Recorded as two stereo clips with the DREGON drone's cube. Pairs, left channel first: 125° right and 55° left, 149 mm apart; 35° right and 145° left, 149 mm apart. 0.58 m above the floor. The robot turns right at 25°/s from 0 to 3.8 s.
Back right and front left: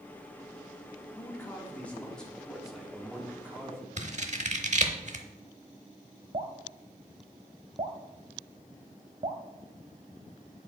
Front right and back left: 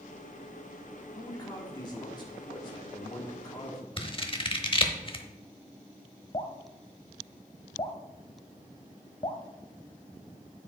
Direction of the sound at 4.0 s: 20° left.